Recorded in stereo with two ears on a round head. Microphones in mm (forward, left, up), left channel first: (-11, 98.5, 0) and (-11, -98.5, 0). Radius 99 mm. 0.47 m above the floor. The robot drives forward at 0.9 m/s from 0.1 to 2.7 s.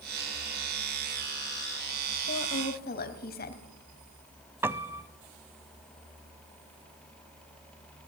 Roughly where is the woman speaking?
Left.